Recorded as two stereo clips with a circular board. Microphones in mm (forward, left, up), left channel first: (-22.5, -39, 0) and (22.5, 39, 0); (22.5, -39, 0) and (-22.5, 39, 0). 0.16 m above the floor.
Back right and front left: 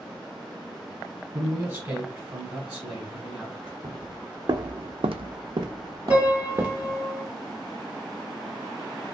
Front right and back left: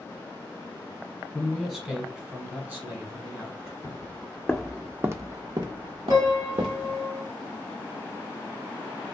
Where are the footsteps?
Straight ahead, 0.8 m; by 7.0 s 125° left, 1.1 m.